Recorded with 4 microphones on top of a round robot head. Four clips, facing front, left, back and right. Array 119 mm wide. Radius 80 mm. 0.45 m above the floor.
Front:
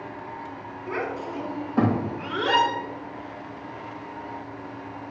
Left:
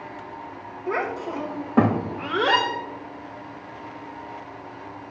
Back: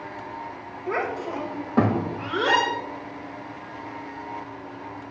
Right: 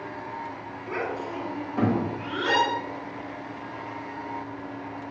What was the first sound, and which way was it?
A child speaking, 140° left.